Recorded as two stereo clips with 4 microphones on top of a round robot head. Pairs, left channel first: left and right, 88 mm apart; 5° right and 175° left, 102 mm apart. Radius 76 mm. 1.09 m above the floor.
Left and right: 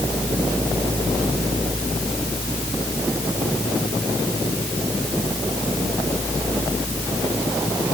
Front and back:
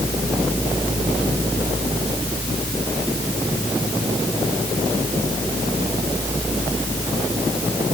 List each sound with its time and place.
Only background noise.